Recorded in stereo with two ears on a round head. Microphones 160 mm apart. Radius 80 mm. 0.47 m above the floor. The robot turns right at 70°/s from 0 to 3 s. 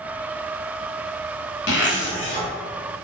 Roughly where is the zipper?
Left.